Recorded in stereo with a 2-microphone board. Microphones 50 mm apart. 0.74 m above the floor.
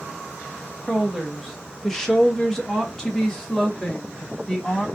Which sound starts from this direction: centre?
A woman speaking, at 0.9 s.